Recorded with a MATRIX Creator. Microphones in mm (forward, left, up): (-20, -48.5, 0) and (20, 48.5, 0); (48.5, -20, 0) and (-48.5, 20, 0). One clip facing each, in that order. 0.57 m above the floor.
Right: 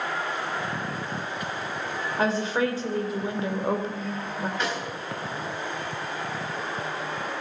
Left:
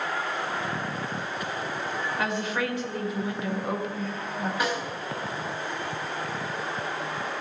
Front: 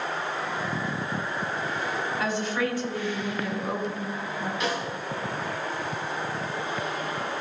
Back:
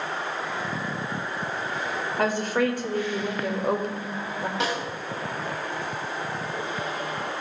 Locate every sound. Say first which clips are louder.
2.2 s a woman speaking: right 6 dB, back 6 dB; 170° right, 2 m
4.6 s a snare drum: left 3 dB, back 1 dB; 150° left, 3.5 m